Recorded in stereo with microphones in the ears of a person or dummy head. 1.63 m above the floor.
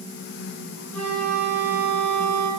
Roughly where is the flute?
Left.